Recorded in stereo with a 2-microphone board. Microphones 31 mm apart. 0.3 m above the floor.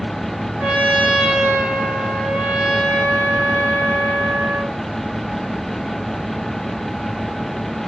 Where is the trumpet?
45° right (ahead or behind), 1.1 m.